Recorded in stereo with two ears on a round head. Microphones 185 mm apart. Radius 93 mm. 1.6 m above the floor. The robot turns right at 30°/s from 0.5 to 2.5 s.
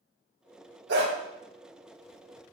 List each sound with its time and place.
0.9 s a dog barking: 60° right (ahead or behind), 2.5 m